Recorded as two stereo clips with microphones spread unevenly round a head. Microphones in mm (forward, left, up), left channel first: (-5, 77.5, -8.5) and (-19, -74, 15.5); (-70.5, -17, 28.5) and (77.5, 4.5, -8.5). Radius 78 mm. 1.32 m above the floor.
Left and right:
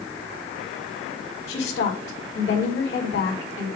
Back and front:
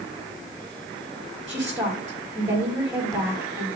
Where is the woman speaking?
90° left, 3 m.